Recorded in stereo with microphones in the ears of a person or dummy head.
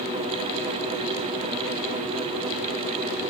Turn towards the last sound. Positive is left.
No sound to turn to.